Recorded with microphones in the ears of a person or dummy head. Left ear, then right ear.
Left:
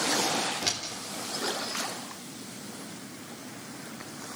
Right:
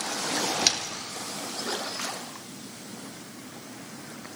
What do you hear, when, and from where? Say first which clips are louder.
0.6 s a door slam: right 6 dB; 35° right (ahead or behind), 3.5 m